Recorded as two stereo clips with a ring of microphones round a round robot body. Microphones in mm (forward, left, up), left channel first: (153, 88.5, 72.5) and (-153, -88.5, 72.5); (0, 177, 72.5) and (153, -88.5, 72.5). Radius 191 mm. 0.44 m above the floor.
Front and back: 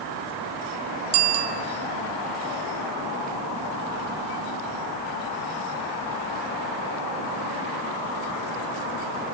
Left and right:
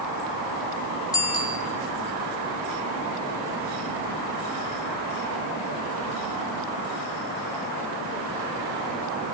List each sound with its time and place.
1.1 s a bicycle bell: 160° right, 2.5 m